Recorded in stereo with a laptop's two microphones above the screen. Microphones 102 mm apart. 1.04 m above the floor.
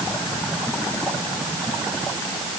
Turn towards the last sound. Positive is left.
No sound to turn to.